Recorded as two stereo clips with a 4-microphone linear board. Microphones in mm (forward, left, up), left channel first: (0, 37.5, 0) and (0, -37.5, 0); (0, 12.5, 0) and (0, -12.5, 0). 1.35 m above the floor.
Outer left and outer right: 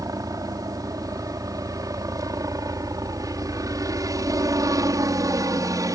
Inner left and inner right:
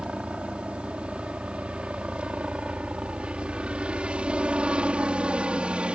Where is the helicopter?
55° right (ahead or behind); by 6.0 s 50° right (ahead or behind).